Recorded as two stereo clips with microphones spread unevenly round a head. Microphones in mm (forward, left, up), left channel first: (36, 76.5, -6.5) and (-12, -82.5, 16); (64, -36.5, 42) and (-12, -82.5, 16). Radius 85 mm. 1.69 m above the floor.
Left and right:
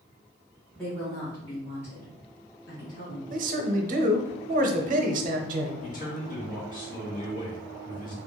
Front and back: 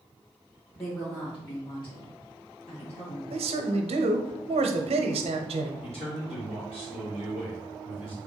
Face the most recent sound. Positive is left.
turn(degrees=30)